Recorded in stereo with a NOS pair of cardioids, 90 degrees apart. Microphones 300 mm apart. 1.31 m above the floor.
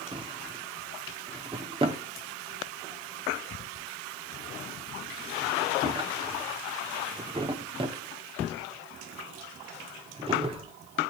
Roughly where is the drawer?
Ahead.